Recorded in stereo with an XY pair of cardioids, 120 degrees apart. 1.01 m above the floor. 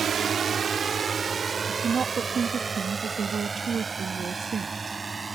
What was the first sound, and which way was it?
A drone, 45° right.